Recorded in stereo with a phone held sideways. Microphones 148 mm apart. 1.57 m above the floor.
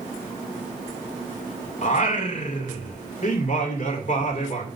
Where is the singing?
55° left (ahead or behind), 2.5 m.